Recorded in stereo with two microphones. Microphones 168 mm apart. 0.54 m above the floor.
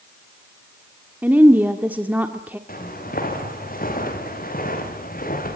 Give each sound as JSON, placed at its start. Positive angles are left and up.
{"t": 1.2, "sound": "a woman speaking", "side_deg": -10, "distance_m": 1.3}
{"t": 2.7, "sound": "footsteps", "side_deg": 60, "distance_m": 6.5}